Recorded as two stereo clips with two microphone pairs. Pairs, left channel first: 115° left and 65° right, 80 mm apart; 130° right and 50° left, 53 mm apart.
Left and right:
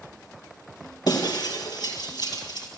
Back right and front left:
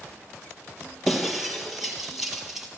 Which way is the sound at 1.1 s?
135° left.